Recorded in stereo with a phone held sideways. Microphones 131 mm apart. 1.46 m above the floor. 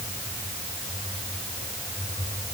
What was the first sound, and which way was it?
Only background noise.